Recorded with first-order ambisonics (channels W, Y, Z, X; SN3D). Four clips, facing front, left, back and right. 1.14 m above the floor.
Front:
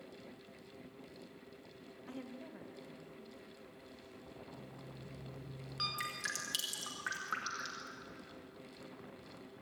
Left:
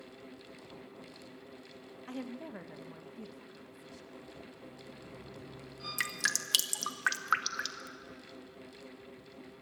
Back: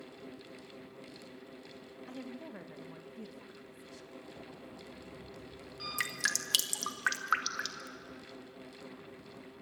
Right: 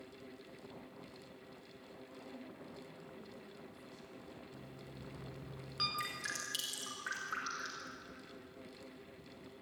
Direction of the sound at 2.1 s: 95° left.